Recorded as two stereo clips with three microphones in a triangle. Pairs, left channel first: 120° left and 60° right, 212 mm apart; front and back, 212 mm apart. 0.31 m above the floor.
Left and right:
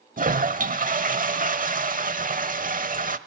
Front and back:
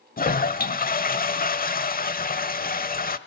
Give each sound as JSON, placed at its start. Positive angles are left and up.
{"t": 0.2, "sound": "a toilet flushing", "azimuth_deg": -30, "distance_m": 0.9}